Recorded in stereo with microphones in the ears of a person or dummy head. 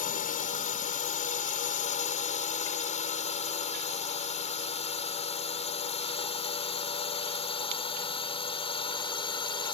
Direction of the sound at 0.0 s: 40° left (ahead or behind).